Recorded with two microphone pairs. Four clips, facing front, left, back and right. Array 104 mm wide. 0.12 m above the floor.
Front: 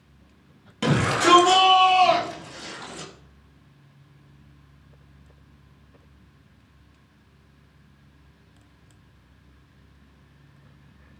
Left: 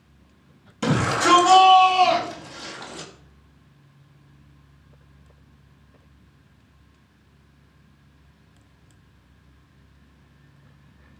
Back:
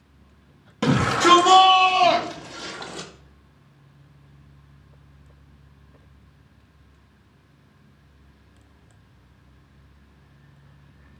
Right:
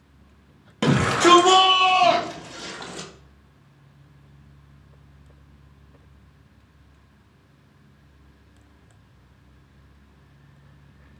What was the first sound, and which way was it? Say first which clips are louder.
A shout: right 3 dB, back 2 dB; 100° right.